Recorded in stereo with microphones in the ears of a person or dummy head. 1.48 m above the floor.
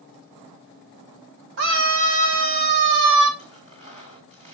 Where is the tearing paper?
30° right (ahead or behind), 2 m.